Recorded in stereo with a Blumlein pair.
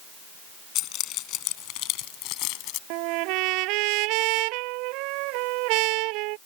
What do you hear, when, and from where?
0.8 s keys jangling: 35° left; by 2.8 s 40° left
2.9 s a trumpet: 40° right